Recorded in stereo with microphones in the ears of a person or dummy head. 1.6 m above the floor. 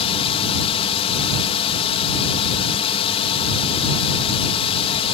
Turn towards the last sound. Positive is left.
turn(degrees=35)  # may be behind; listen again after turning